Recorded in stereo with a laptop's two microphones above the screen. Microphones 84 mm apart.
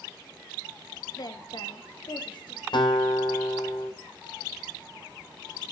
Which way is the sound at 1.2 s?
50° left (ahead or behind).